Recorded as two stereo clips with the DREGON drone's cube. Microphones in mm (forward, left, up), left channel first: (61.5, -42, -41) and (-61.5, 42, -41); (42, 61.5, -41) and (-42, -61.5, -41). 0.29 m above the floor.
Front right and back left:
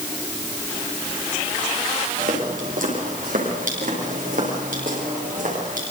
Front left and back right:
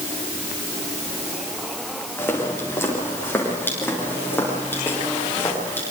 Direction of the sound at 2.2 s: 130° left.